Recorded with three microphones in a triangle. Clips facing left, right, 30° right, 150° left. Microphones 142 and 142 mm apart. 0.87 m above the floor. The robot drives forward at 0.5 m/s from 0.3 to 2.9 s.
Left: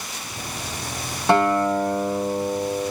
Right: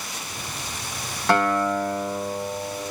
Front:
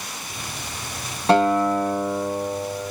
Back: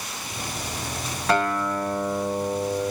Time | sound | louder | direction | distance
1.3 | a guitar | left 3 dB, front 6 dB | 25° left | 0.8 m